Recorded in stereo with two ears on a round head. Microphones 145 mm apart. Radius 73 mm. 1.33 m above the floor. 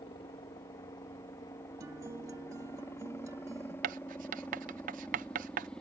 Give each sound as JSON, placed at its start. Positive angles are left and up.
{"t": 0.0, "sound": "a helicopter", "side_deg": 35}
{"t": 1.8, "sound": "a guitar", "side_deg": -20}
{"t": 3.8, "sound": "writing", "side_deg": -55}